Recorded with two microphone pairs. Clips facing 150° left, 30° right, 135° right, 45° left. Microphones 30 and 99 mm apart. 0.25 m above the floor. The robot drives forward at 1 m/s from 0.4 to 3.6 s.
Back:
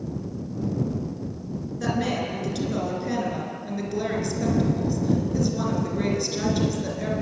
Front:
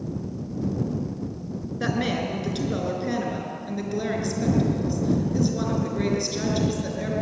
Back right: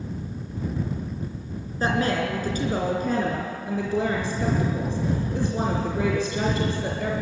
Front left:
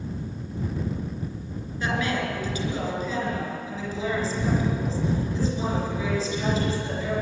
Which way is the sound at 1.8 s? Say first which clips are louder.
Even, back right 3 dB; 90° right.